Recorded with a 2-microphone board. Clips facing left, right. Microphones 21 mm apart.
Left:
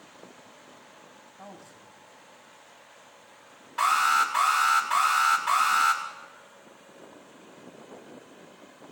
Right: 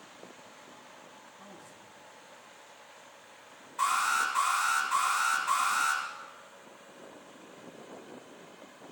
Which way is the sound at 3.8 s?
70° left (ahead or behind).